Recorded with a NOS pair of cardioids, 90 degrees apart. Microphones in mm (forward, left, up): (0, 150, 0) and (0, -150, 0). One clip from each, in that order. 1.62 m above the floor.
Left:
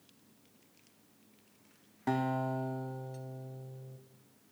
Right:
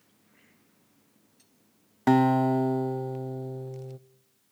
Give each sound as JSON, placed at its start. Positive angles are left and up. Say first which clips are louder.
{"t": 2.1, "sound": "a guitar", "louder": "right 11 dB", "azimuth_deg": -50, "distance_m": 0.6}